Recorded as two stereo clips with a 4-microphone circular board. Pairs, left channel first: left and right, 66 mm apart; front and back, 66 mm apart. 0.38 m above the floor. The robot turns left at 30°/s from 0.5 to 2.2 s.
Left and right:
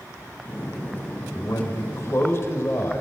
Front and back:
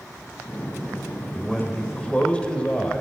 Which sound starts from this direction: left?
A man speaking, at 1.3 s.